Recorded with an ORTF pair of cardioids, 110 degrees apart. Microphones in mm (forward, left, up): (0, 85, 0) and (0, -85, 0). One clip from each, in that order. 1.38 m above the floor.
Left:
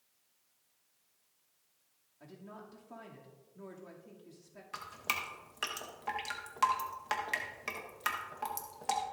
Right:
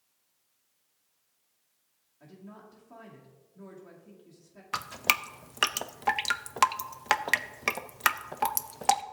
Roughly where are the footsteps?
No footsteps in this recording.